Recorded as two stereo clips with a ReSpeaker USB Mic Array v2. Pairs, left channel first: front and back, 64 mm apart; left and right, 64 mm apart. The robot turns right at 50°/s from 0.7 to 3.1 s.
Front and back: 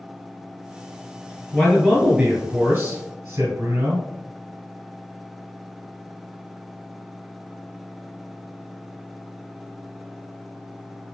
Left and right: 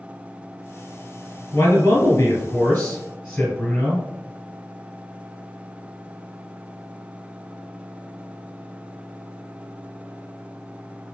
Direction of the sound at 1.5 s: 95° left.